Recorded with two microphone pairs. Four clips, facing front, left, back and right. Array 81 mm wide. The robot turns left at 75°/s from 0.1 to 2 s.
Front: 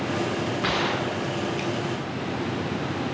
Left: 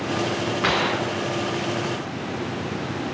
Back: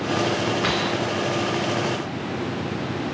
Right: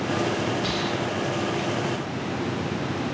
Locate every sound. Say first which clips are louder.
0.6 s a gunshot: left 4 dB, back 2 dB; 90° left, 4.5 m; by 1.7 s 10° left, 4.5 m